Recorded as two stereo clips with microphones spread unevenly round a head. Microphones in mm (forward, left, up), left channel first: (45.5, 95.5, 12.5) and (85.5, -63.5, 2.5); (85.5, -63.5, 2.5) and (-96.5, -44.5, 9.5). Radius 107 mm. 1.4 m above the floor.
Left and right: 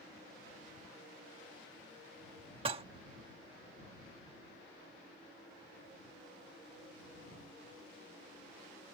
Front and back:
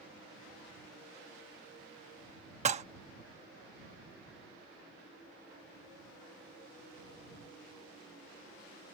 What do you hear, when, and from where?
2.6 s dishes clattering: 140° right